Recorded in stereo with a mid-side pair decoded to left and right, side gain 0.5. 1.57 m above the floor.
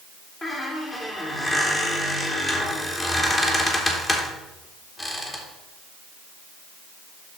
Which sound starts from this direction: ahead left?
A squeak, at 0.4 s.